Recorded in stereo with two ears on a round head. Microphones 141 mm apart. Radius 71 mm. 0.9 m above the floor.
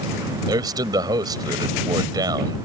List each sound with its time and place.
0.5 s a man speaking: 25° right (ahead or behind)